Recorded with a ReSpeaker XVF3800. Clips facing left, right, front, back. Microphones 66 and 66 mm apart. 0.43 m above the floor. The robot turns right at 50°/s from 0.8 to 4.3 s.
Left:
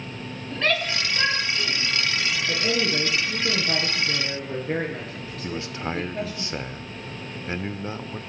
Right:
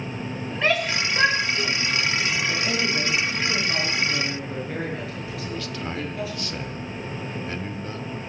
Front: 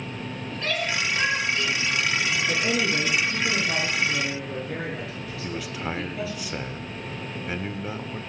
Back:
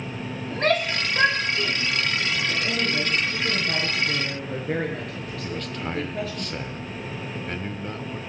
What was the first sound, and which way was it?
A shout, 160° right.